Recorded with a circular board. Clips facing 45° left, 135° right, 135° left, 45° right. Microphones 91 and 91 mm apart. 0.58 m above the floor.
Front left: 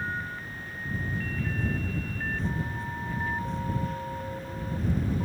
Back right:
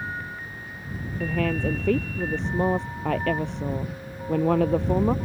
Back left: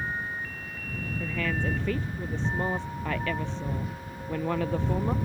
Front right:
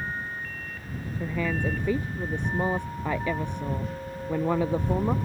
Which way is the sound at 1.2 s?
120° right.